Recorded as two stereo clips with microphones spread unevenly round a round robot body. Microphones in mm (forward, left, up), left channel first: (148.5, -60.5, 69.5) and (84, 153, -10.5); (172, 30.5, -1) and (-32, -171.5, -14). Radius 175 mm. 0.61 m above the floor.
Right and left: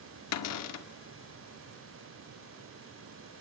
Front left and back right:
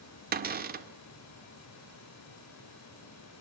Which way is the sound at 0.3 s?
85° right.